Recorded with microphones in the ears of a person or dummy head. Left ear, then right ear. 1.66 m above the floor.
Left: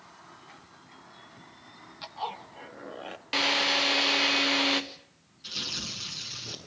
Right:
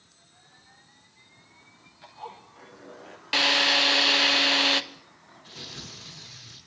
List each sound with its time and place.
2.0 s a zipper: 45° left (ahead or behind), 2.5 m
3.3 s a drill: 15° right (ahead or behind), 1.2 m
5.4 s tearing paper: 55° left (ahead or behind), 8 m